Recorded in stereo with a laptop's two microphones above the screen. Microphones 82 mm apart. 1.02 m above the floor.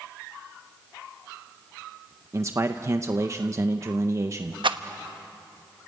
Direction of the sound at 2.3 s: 35° right (ahead or behind).